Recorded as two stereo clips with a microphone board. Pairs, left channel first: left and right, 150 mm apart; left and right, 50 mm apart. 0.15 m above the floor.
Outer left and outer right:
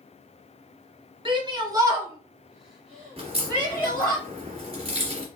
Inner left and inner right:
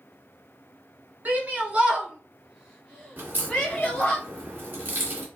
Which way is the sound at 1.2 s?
35° right (ahead or behind).